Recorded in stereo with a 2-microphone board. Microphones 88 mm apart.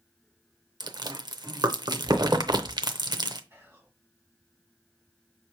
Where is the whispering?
30° right (ahead or behind), 2.5 m.